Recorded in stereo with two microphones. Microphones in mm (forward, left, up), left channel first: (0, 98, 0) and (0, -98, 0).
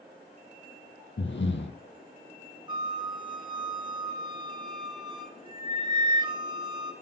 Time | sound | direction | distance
1.2 | breathing | 75° left (ahead or behind) | 1.0 m
2.7 | a flute | 25° right (ahead or behind) | 0.8 m